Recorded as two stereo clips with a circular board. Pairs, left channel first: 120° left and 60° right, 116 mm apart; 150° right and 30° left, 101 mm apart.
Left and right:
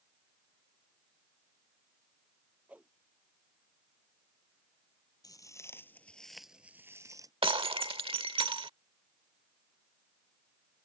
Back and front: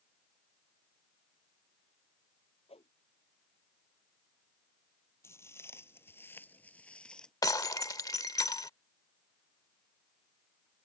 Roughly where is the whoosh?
Behind right.